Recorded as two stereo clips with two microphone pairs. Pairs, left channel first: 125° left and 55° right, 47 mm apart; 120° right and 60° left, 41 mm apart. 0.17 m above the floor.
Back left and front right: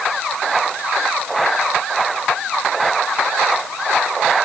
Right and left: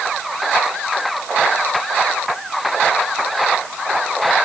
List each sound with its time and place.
Only background noise.